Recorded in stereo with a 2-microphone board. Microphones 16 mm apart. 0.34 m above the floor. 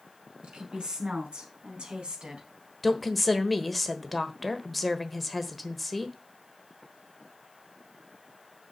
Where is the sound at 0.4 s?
60° right (ahead or behind), 4.5 m; by 2.5 s 65° right (ahead or behind), 3.5 m.